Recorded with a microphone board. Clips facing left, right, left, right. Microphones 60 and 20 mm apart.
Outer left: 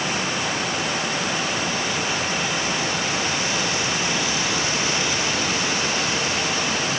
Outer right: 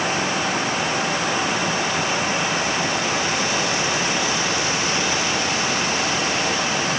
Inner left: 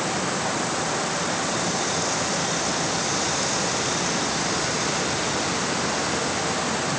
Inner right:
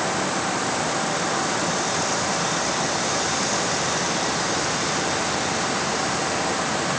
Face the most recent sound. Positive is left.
No sound to turn to.